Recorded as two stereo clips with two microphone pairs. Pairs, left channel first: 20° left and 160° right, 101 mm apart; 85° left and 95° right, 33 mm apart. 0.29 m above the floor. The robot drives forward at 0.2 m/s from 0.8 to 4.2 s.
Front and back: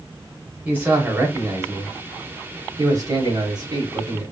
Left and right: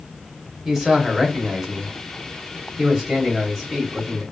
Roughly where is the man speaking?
Behind.